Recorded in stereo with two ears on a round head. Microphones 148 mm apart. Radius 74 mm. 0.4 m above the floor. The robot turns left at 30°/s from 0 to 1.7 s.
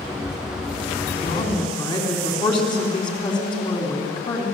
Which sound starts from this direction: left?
A woman speaking, at 1.2 s.